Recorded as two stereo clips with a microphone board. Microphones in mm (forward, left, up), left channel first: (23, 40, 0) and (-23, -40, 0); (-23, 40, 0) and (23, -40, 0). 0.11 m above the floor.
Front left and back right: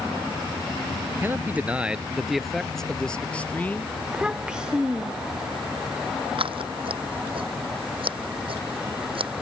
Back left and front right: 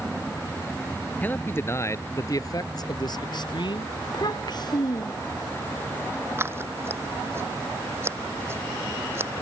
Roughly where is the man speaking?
Behind.